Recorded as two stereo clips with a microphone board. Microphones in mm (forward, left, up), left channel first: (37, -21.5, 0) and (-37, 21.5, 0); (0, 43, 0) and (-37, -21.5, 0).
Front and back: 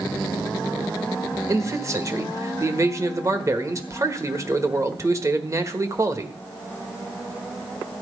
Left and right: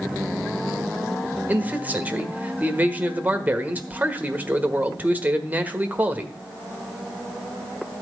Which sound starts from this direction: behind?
A man speaking, at 1.5 s.